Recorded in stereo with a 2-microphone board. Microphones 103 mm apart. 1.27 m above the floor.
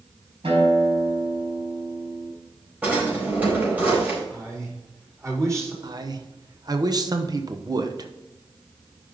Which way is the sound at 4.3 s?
30° right (ahead or behind).